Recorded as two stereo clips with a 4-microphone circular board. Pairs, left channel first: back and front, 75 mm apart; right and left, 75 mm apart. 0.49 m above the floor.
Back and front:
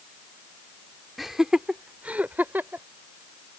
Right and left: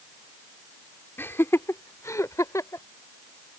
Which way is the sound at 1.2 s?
85° right.